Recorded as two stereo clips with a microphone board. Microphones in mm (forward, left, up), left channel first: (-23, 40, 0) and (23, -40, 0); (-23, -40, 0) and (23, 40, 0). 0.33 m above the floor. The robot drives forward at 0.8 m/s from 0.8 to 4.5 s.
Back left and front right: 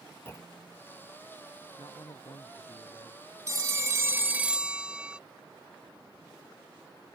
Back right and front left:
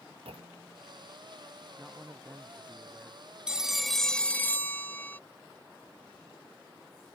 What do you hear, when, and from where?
0.2 s a clunk: 55° left
1.8 s a man speaking: 155° left; by 3.2 s 160° left
3.5 s a phone ringing: 20° right; by 5.2 s 120° right